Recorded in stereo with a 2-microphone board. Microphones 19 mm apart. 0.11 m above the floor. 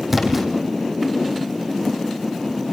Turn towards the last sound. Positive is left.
turn(degrees=-15)  # may be behind; listen again after turning